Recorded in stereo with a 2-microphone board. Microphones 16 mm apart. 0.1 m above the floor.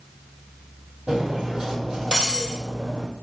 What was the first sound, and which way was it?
Cutlery clinking, 60° right (ahead or behind).